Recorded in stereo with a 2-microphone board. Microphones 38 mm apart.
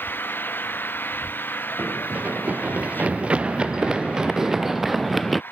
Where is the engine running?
60° left (ahead or behind).